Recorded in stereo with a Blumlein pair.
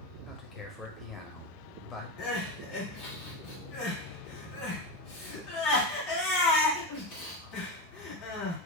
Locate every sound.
0.3 s a man speaking: 15° left, 0.7 m
2.2 s crying: 40° left, 1.6 m